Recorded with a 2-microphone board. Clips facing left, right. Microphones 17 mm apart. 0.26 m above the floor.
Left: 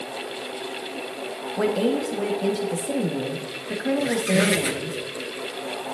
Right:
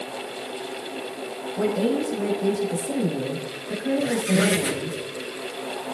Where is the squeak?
25° left (ahead or behind), 2 m.